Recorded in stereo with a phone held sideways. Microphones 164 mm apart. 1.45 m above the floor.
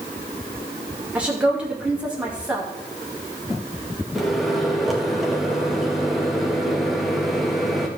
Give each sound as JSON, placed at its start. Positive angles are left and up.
{"t": 1.1, "sound": "a woman speaking", "side_deg": -10, "distance_m": 2.5}
{"t": 4.2, "sound": "a microwave", "side_deg": 0, "distance_m": 1.8}